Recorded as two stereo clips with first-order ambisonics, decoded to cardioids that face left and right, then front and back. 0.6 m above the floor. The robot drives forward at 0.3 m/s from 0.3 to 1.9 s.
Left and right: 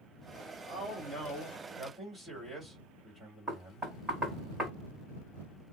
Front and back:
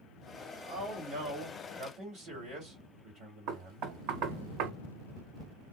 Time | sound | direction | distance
0.6 | a man speaking | 165° left | 1.8 m
3.5 | knocking | straight behind | 2 m